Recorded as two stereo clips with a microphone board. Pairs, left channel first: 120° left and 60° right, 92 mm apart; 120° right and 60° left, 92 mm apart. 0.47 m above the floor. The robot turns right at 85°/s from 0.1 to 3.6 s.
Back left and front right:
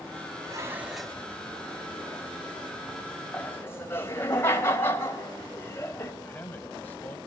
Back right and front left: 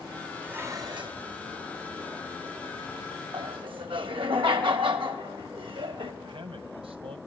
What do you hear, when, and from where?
0.4 s dishes clattering: 20° right, 2 m; by 1.2 s 45° left, 2 m
3.3 s laughter: 35° left, 2.5 m; by 6.1 s 60° left, 2.5 m
6.2 s a man speaking: 50° left, 2.5 m